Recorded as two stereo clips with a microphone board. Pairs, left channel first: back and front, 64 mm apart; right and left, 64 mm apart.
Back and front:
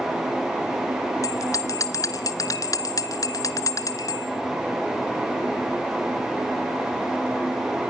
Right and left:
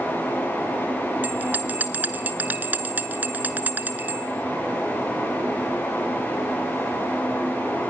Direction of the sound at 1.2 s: 155° left.